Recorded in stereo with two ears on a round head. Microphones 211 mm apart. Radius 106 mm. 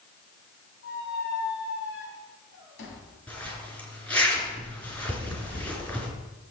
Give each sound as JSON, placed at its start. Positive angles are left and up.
{"t": 0.8, "sound": "a squeak", "side_deg": 60, "distance_m": 3.5}
{"t": 3.3, "sound": "a zipper", "side_deg": 5, "distance_m": 3.5}